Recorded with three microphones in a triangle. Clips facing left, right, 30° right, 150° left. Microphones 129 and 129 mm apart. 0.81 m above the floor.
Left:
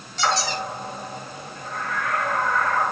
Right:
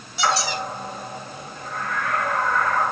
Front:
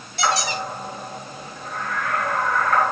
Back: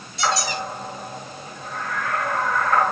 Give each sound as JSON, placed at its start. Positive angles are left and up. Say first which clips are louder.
{"t": 0.2, "sound": "a squeak", "louder": "right 1 dB, front 1 dB", "azimuth_deg": -10, "distance_m": 3.0}